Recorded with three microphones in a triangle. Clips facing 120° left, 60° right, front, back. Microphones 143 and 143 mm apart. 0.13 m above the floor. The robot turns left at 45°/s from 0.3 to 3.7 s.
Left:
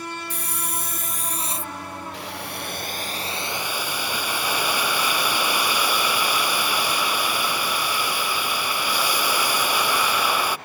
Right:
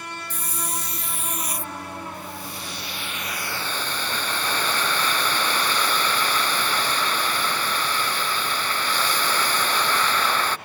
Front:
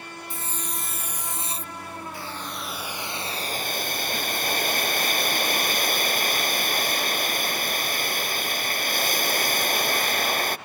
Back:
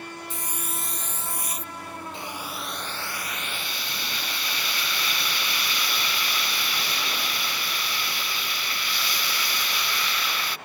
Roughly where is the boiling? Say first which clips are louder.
Left 2 dB, even; left.